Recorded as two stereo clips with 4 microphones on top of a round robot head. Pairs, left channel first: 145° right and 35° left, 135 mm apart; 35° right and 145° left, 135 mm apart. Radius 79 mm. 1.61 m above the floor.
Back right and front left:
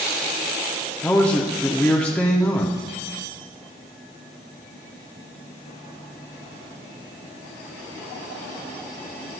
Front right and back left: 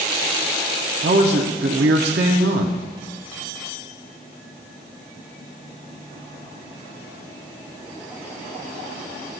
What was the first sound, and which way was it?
A man speaking, 135° left.